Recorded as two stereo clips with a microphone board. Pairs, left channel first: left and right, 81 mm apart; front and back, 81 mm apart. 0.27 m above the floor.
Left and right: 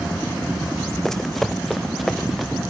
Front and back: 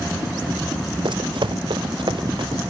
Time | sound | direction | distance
1.1 | running footsteps | 175° left | 0.7 m